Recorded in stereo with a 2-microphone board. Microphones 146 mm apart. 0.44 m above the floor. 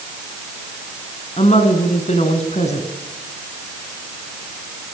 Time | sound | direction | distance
1.4 | a woman speaking | 50° left (ahead or behind) | 4.5 m